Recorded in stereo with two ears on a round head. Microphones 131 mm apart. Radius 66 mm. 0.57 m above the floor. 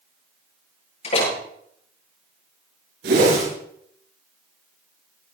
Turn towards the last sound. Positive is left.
turn(degrees=-85)